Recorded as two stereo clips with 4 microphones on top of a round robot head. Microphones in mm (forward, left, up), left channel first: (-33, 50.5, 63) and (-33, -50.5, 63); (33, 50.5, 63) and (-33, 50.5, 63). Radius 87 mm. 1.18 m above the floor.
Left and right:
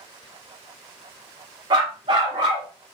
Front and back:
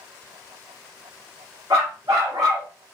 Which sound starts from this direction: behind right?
A dog barking, at 1.7 s.